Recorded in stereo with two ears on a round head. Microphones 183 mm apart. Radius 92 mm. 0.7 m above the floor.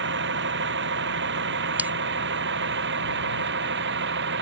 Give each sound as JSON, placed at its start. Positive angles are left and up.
{"t": 0.0, "sound": "a vehicle", "side_deg": -60}
{"t": 1.8, "sound": "a bell", "side_deg": -5}